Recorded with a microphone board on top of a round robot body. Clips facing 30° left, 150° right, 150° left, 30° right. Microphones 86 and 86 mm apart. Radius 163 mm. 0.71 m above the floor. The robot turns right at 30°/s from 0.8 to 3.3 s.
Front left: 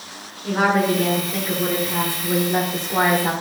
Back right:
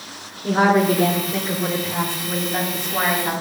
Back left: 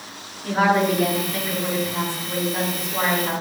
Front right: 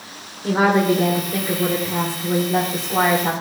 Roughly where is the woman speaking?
Right.